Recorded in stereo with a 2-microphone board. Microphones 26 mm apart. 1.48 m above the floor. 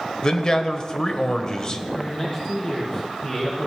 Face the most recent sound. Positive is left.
turn(degrees=20)  # may be behind; listen again after turning